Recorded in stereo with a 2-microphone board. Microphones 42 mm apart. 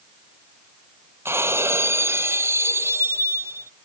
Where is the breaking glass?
90° right.